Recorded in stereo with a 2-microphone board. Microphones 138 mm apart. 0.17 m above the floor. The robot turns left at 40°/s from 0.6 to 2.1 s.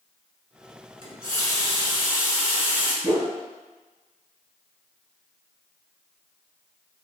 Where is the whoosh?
25° right (ahead or behind), 1.3 m.